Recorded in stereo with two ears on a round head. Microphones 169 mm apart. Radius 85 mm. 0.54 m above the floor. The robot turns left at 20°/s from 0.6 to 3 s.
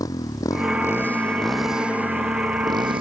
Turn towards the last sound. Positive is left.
turn(degrees=-30)